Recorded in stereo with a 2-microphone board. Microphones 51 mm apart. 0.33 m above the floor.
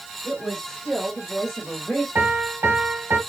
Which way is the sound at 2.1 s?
55° right (ahead or behind).